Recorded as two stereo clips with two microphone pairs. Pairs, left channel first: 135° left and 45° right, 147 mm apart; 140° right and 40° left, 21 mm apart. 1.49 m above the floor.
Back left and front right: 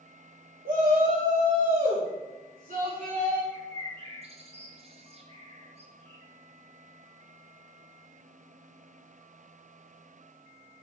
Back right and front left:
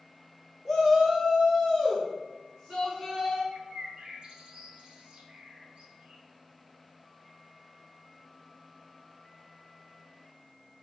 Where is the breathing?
I don't hear breathing.